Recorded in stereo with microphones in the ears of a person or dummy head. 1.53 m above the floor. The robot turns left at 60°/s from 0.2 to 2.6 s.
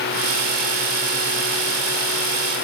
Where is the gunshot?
I don't hear a gunshot.